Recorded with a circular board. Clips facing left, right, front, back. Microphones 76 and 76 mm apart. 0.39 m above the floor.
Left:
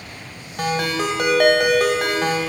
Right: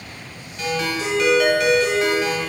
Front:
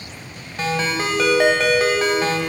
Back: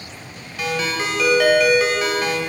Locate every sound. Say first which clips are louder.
0.6 s a ringtone: left 2 dB, front 1 dB; 55° left, 1.2 m